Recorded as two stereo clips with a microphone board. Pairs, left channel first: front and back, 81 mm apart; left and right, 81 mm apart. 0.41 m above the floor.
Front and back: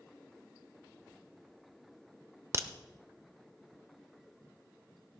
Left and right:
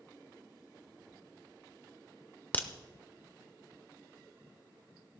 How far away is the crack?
About 0.7 m.